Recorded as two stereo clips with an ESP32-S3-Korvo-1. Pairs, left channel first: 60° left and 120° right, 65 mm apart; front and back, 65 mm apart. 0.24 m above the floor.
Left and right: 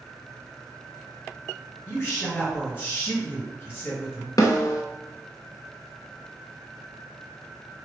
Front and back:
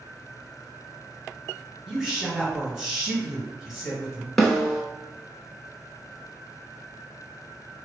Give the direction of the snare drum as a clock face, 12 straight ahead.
9 o'clock.